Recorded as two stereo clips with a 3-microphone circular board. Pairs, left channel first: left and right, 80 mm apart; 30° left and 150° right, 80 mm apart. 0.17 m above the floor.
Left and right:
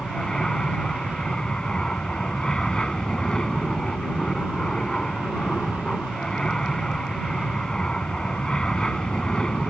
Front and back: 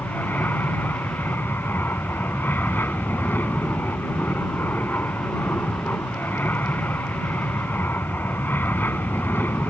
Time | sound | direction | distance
0.0 | an aircraft | 25° left | ?